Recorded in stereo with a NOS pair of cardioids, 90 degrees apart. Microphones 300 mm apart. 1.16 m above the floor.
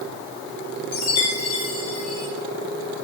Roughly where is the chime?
Ahead left.